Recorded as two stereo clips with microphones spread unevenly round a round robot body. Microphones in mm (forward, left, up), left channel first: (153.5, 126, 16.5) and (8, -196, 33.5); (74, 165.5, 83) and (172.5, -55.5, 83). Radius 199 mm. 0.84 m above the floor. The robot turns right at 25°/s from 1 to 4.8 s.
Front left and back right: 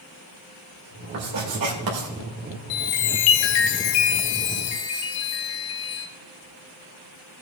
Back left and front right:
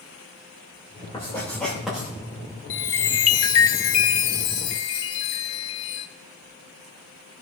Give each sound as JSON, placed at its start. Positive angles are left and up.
{"t": 1.1, "sound": "writing", "azimuth_deg": -175, "distance_m": 2.5}
{"t": 2.7, "sound": "a chime", "azimuth_deg": 75, "distance_m": 0.9}